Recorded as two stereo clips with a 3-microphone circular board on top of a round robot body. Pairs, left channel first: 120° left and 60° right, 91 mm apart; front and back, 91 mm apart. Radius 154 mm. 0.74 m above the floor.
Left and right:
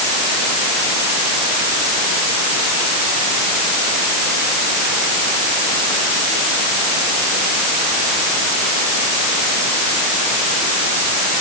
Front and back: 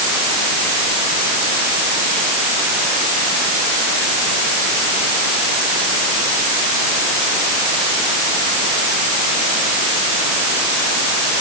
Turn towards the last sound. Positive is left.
No sound to turn to.